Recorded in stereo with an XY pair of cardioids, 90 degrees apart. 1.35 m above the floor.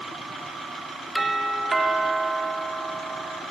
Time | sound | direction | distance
1.1 | a doorbell | 20° right | 3.5 m